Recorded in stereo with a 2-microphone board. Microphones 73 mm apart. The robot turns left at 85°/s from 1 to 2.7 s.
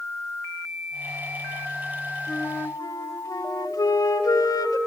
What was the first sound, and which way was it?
A flute, 150° left.